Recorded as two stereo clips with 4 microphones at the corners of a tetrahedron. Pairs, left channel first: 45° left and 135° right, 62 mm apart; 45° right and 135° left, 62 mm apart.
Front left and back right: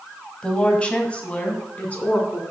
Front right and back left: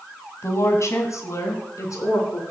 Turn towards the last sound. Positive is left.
turn(degrees=-20)